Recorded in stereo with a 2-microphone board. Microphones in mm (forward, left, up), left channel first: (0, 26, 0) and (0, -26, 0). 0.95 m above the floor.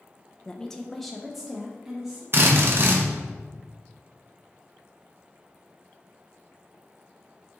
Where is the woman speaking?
15° left (ahead or behind), 0.7 m; by 2.2 s 15° right (ahead or behind), 1.3 m.